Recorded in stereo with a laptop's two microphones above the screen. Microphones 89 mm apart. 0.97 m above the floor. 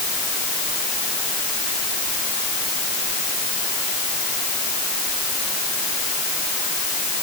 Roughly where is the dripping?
No dripping in this recording.